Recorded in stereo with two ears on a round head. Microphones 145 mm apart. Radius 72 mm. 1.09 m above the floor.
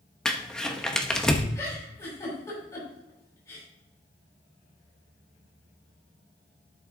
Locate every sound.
0.2 s crumpling: 5° left (ahead or behind), 0.9 m
1.6 s a giggle: 20° left (ahead or behind), 5.5 m